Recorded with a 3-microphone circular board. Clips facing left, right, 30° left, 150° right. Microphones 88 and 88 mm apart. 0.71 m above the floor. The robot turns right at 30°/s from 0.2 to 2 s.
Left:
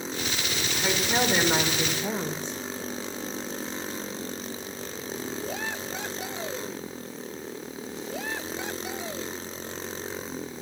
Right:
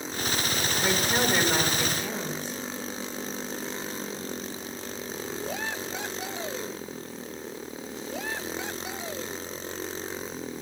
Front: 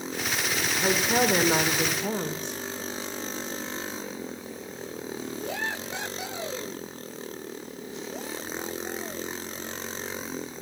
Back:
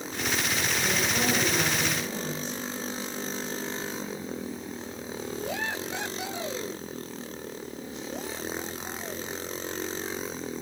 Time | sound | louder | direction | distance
0.8 | a woman speaking | left 1 dB, front 7 dB | 10° right | 1.9 m